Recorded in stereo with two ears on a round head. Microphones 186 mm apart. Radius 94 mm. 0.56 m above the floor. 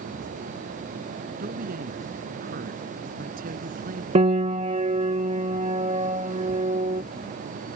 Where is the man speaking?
45° right (ahead or behind).